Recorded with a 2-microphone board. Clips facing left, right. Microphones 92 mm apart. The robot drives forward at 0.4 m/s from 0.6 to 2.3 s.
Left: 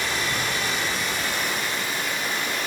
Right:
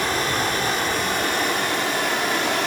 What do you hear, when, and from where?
0.0 s running water: 50° right (ahead or behind), 2 m; by 2.7 s 65° right (ahead or behind), 1.8 m